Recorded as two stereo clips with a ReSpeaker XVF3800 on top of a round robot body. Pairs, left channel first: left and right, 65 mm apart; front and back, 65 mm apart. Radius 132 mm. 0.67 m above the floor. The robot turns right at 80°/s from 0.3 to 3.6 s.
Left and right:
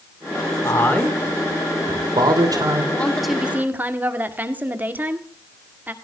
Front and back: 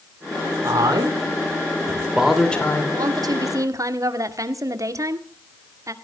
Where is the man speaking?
130° left, 3 m; by 2.8 s 55° right, 3 m.